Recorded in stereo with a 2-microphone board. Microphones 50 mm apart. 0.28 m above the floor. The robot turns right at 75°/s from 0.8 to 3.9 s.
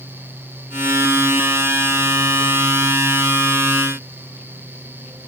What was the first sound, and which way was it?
Only background noise.